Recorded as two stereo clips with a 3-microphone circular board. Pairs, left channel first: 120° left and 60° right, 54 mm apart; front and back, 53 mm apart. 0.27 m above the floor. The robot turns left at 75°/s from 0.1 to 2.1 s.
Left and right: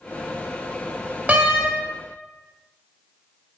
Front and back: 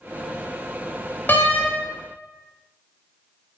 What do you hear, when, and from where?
1.3 s a door slam: 25° right, 0.9 m; by 1.7 s 55° right, 0.9 m